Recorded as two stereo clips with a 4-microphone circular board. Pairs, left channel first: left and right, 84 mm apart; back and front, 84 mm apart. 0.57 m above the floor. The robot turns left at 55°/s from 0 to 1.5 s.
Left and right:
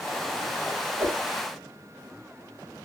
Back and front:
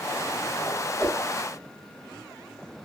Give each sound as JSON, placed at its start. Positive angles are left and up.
{"t": 1.0, "sound": "a whoosh", "azimuth_deg": -90, "distance_m": 1.8}